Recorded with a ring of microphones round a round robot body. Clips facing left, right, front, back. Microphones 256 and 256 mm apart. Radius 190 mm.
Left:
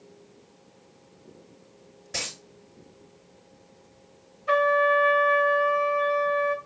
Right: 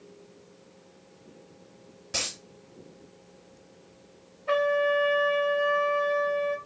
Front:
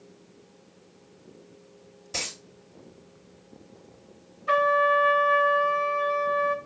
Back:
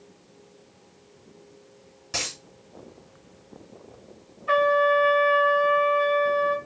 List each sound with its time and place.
2.1 s a dropped coin: 150° right, 1.9 m
4.5 s a trumpet: 30° left, 0.5 m